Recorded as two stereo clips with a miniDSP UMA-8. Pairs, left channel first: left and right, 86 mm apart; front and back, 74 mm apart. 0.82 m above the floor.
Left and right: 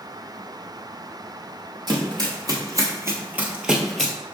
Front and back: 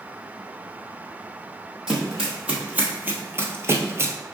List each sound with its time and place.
1.9 s running footsteps: 100° right, 1.6 m; by 4.1 s 160° left, 1.0 m